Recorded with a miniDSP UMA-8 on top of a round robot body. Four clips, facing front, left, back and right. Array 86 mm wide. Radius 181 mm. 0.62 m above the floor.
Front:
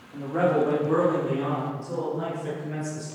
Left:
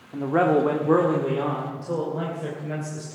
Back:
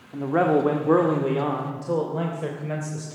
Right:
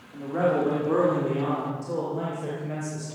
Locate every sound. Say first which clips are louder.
0.1 s a man speaking: left 4 dB, back 3 dB; 125° left, 1.9 m; by 3.0 s 175° left, 4 m